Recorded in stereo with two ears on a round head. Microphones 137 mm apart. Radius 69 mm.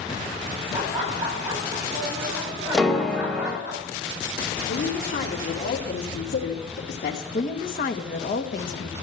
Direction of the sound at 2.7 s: 5° left (ahead or behind).